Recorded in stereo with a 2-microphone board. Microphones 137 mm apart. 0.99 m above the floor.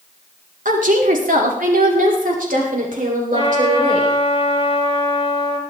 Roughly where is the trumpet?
Left.